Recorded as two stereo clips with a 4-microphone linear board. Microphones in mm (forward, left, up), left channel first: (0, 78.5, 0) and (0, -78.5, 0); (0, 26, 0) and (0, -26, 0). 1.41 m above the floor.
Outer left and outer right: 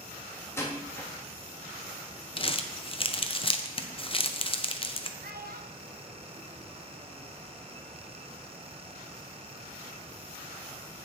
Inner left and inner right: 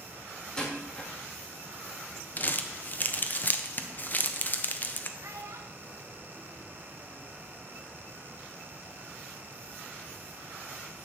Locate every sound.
0.6 s a door slam: 15° left (ahead or behind), 1.5 m
2.4 s crumpling: 35° left (ahead or behind), 0.6 m
5.2 s a child speaking: 80° right, 1.1 m